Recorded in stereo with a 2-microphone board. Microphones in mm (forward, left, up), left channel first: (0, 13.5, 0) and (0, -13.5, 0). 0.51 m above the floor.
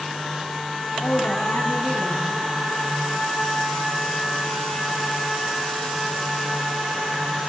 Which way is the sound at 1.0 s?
75° left (ahead or behind).